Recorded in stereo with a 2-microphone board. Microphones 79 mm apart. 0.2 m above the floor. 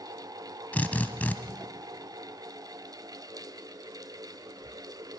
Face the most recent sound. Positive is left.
turn(degrees=20)  # may be behind; listen again after turning